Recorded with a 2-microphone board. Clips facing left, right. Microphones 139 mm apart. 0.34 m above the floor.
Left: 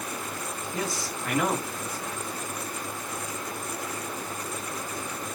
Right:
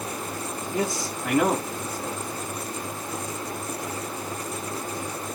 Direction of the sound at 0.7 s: 15° right (ahead or behind).